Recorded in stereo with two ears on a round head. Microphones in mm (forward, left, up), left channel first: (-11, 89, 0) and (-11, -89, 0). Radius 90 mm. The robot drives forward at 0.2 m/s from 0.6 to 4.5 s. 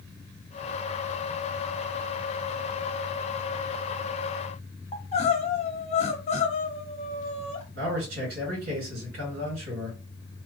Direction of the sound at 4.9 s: 35° left (ahead or behind).